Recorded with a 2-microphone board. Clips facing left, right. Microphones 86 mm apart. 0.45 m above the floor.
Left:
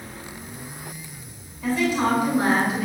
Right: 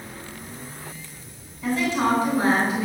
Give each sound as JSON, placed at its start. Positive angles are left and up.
{"t": 1.6, "sound": "a woman speaking", "side_deg": 10, "distance_m": 4.5}